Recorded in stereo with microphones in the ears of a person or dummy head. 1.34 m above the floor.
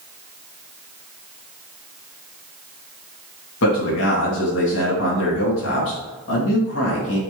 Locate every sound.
3.6 s a man speaking: 65° left (ahead or behind), 2 m